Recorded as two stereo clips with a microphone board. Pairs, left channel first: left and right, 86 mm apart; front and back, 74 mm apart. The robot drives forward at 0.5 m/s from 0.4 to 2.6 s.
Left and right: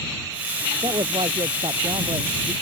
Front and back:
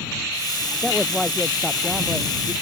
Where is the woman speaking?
75° right; by 2.5 s 85° right.